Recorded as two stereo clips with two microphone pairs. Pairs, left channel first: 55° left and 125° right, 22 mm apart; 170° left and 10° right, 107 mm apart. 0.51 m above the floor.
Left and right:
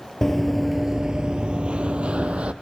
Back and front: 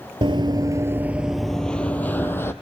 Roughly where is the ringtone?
I don't hear a ringtone.